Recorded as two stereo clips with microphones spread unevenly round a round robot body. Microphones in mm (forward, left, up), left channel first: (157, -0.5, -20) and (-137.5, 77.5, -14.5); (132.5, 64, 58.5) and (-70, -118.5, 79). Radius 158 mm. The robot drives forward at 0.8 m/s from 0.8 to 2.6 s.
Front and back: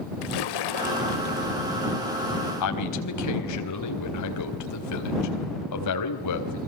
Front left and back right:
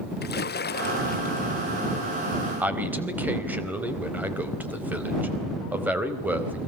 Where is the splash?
15° right, 1.3 m; by 1.5 s 25° right, 0.8 m.